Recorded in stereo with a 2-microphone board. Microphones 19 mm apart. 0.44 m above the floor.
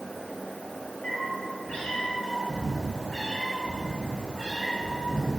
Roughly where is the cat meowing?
Left.